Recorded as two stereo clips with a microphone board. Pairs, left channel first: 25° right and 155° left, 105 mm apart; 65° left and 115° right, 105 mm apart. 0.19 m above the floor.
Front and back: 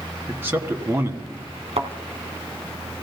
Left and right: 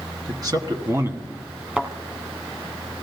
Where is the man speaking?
140° right, 1.9 m; by 1.5 s 175° right, 1.4 m.